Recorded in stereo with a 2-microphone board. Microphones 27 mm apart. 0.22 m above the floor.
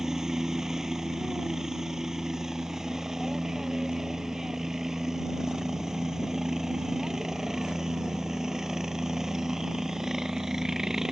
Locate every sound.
0.0 s a helicopter: 20° right (ahead or behind)